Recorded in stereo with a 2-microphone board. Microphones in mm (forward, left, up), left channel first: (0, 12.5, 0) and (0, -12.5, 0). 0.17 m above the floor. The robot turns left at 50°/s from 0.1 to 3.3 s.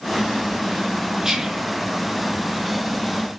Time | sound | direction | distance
1.2 | whispering | 15° right (ahead or behind) | 3 m